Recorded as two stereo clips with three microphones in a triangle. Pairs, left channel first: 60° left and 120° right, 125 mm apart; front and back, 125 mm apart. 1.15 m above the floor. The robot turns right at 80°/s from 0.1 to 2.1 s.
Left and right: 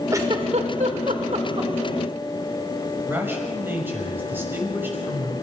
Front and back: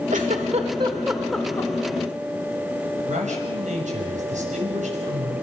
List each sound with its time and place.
0.1 s a giggle: 175° left, 2.5 m; by 1.7 s 60° right, 2.5 m
3.0 s a man speaking: 165° left, 6.5 m